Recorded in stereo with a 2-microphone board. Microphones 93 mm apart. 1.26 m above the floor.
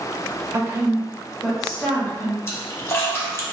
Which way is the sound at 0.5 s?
30° right (ahead or behind).